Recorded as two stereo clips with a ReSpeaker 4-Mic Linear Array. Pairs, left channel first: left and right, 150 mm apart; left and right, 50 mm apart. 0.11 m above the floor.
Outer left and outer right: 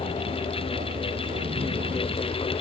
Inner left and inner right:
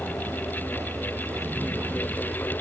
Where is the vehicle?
75° right (ahead or behind); by 2.6 s 55° right (ahead or behind).